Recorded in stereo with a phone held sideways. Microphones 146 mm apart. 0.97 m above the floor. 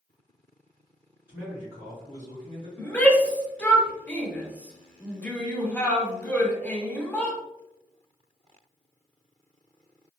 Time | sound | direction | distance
1.3 | a man speaking | 10° right (ahead or behind) | 1.3 m
2.8 | a shout | 10° left (ahead or behind) | 0.6 m